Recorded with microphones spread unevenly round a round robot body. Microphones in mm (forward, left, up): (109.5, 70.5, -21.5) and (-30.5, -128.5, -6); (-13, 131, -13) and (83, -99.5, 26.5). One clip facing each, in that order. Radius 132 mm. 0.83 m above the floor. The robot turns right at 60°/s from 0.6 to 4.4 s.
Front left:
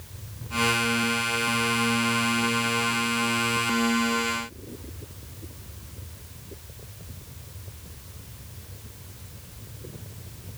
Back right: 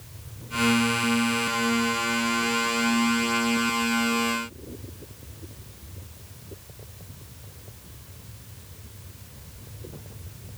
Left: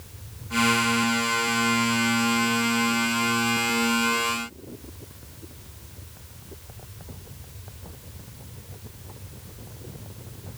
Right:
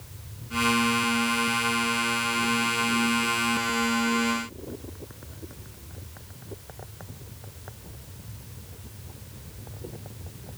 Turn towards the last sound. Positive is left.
No sound to turn to.